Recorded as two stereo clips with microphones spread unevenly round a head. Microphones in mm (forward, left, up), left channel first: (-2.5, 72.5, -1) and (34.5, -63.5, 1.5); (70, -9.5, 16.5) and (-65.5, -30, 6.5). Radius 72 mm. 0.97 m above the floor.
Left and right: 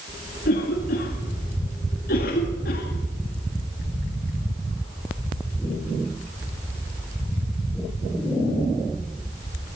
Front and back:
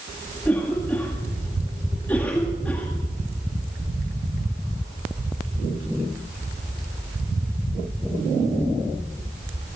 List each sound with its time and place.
0.5 s a cough: 90° left, 1.8 m